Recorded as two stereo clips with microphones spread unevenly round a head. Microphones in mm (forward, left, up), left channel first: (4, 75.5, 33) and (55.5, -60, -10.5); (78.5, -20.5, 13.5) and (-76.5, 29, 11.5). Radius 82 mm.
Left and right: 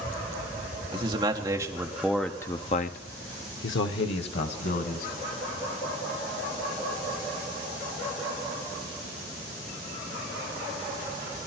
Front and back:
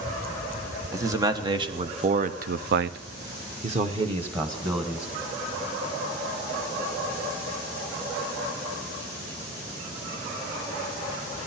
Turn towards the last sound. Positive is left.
turn(degrees=95)